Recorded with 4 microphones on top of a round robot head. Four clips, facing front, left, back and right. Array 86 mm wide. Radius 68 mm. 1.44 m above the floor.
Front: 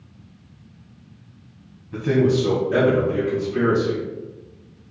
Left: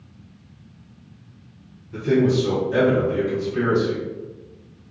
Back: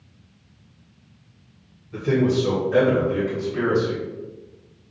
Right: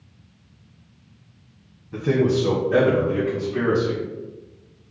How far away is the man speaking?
About 1.3 m.